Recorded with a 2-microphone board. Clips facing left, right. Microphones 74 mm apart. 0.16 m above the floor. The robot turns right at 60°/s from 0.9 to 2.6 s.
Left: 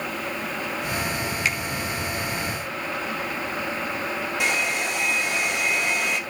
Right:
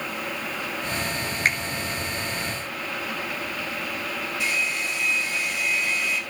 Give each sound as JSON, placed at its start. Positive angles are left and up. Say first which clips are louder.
{"t": 1.4, "sound": "a finger snap", "louder": "right 4 dB", "side_deg": -45, "distance_m": 2.0}
{"t": 4.4, "sound": "a hair dryer", "louder": "left 3 dB", "side_deg": 70, "distance_m": 2.5}